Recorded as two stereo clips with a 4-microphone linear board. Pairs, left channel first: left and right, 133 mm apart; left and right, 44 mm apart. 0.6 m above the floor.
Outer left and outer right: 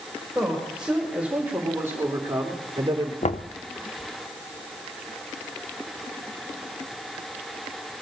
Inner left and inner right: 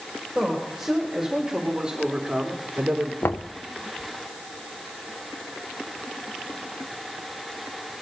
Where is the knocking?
55° left (ahead or behind), 0.6 m.